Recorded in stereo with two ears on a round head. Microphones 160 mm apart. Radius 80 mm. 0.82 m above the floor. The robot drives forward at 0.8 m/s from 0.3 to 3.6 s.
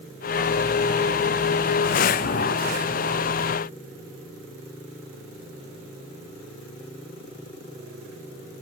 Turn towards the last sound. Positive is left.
No sound to turn to.